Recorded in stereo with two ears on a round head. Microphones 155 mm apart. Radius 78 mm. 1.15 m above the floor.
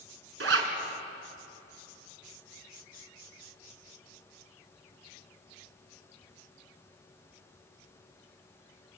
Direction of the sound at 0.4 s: 75° right (ahead or behind).